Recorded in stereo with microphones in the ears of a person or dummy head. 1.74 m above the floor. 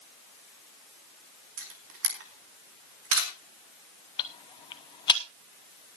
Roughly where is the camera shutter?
Right.